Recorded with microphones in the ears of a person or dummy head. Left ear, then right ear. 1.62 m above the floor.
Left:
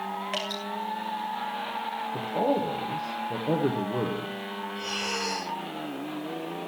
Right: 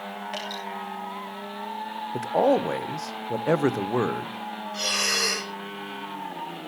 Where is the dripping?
20° left (ahead or behind), 4 m.